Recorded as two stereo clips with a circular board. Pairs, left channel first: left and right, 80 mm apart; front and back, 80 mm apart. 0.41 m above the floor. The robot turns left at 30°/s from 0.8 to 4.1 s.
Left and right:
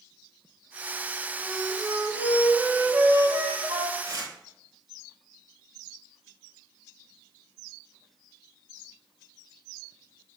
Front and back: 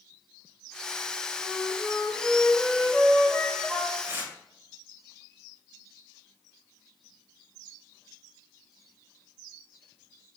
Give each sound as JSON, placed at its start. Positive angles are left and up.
{"t": 1.4, "sound": "a flute", "azimuth_deg": -35, "distance_m": 1.9}
{"t": 4.0, "sound": "tearing paper", "azimuth_deg": -120, "distance_m": 1.2}